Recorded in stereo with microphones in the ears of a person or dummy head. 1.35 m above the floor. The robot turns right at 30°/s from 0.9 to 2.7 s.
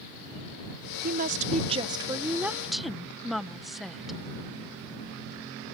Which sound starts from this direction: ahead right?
A woman speaking, at 1.0 s.